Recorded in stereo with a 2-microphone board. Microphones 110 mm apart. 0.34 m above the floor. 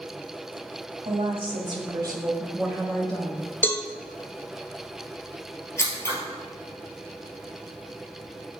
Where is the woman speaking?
60° right (ahead or behind), 1.9 m; by 3.5 s 20° left (ahead or behind), 1.4 m.